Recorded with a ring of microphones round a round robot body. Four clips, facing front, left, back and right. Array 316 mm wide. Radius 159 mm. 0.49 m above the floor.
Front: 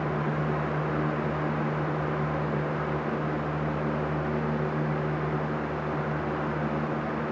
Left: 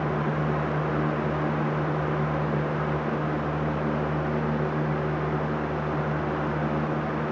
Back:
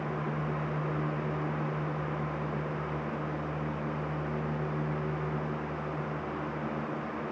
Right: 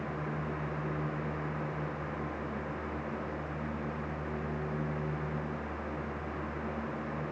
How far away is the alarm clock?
No alarm clock in this recording.